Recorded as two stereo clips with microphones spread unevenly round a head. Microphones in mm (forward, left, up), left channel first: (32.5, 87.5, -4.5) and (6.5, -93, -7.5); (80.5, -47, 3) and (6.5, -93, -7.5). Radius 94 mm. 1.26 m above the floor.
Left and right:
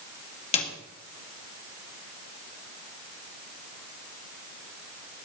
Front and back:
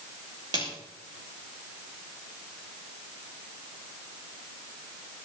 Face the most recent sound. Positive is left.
turn(degrees=145)